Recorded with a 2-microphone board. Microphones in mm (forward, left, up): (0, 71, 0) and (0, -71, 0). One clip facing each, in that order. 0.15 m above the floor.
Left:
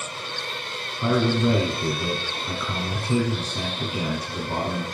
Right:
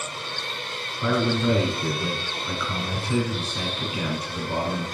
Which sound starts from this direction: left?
A man speaking, at 1.0 s.